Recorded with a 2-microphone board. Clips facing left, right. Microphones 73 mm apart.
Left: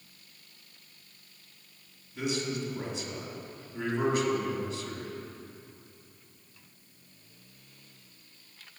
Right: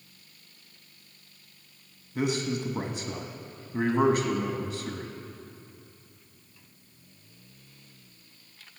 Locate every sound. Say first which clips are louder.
2.1 s a man speaking: right 4 dB; 55° right (ahead or behind), 1.2 m